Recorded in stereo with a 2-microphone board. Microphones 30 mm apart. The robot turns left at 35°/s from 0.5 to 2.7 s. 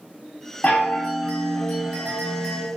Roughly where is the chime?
Behind left.